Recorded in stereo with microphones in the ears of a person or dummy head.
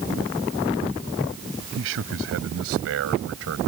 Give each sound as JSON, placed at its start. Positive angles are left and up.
{"t": 1.8, "sound": "a man speaking", "side_deg": -75}